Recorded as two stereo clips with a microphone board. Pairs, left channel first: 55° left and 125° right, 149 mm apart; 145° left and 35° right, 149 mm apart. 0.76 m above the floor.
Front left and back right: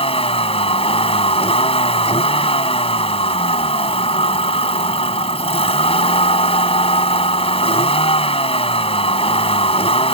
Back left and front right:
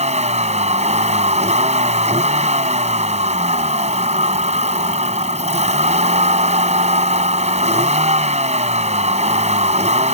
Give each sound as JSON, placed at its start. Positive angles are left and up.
{"t": 0.0, "sound": "a vehicle", "azimuth_deg": 5}